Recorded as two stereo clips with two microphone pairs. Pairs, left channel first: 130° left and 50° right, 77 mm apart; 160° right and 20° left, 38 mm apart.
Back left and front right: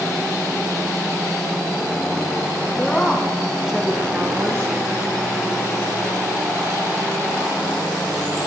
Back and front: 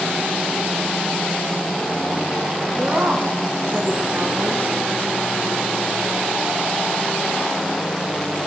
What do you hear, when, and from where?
2.8 s a woman speaking: 55° left, 2.5 m; by 4.7 s 5° right, 2 m